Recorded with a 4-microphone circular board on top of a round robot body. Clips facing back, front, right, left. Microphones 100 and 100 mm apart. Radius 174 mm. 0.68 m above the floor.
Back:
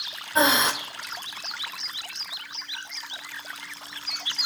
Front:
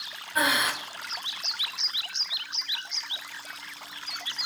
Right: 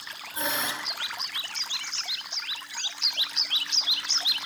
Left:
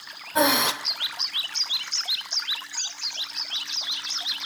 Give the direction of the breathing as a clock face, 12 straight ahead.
8 o'clock.